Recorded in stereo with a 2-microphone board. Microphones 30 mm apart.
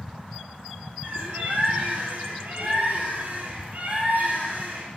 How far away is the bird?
About 2 m.